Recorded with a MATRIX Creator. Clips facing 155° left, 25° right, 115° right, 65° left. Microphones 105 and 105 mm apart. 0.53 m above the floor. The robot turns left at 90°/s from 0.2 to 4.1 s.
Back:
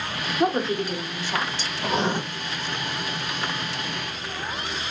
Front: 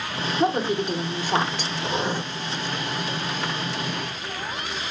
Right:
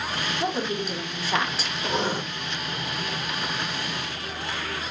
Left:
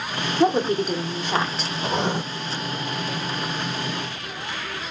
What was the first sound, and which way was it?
A woman speaking, 80° left.